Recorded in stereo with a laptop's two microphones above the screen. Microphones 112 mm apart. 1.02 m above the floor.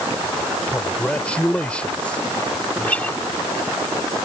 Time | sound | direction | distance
0.7 | a man speaking | 10° left (ahead or behind) | ?
2.8 | a guitar | 15° left (ahead or behind) | ?